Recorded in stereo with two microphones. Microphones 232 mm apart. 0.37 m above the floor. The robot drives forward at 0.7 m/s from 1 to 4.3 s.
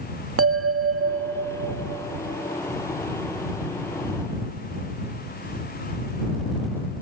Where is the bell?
70° right (ahead or behind), 0.7 m; by 2.3 s 30° right (ahead or behind), 1.2 m.